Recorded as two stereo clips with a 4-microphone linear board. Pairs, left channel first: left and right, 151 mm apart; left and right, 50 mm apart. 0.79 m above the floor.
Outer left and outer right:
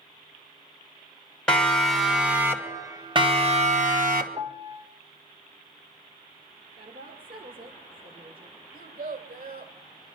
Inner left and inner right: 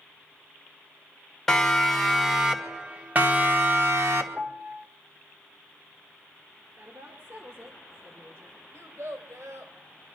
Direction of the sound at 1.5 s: 5° left (ahead or behind).